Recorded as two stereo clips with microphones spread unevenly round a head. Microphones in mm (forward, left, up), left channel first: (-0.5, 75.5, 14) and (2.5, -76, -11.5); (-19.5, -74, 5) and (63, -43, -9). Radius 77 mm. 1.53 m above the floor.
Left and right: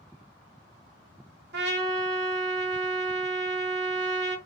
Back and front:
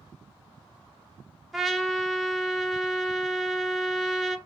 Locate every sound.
1.5 s a trumpet: 65° right, 0.8 m